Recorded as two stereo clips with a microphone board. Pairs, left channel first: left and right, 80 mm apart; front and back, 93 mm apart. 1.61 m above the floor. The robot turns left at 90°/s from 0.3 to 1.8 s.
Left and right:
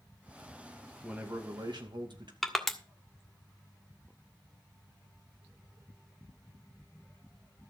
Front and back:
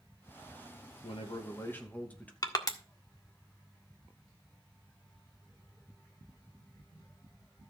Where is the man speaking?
5° right, 2.5 m; by 2.3 s 75° right, 2.5 m.